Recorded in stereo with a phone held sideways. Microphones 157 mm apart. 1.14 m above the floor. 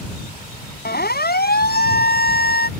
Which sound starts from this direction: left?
A siren, at 0.8 s.